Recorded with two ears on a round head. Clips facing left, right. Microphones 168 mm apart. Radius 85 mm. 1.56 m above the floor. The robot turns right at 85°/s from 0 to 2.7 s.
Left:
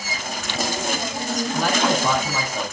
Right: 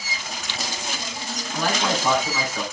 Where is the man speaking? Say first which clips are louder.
Left 2 dB; 80° left, 4 m; by 2.6 s 175° left, 4 m.